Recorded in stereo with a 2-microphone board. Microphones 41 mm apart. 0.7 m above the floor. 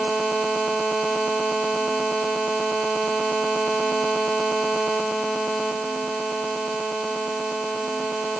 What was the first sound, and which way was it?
Only background noise.